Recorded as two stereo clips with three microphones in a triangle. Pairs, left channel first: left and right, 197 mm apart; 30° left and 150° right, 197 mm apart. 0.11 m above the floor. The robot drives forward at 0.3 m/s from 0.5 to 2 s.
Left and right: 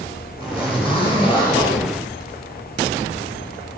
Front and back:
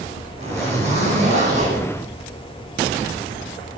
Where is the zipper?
155° left, 5.5 m.